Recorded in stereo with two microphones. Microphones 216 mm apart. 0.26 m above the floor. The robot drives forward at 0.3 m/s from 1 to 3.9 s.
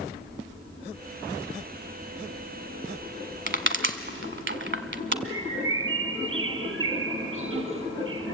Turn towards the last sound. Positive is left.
turn(degrees=-70)  # may be behind; listen again after turning